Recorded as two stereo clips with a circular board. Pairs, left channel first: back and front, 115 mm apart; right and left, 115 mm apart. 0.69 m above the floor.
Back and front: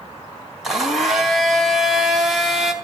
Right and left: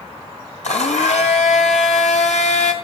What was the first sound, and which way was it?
A blender, 90° right.